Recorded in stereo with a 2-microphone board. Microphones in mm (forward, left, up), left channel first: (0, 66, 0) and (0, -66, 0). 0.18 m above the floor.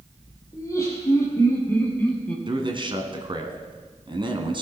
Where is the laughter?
25° left (ahead or behind), 4.5 m; by 2.4 s 10° left (ahead or behind), 3 m.